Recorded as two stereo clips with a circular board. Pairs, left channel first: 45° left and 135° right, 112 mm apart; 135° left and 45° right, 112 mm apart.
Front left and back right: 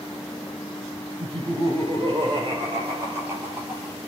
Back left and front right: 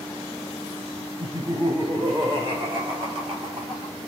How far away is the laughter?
About 5 m.